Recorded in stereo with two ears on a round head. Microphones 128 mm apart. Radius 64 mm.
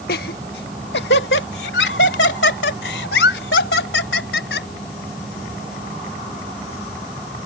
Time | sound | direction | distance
0.1 | laughter | 70° left (ahead or behind) | ?